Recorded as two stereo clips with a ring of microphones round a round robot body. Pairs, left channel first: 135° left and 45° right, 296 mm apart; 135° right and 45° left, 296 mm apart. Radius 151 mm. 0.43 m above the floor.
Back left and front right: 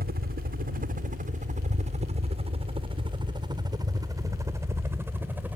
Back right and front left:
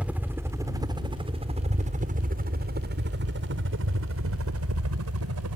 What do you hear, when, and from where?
0.0 s a helicopter: 35° right; by 5.6 s 40° left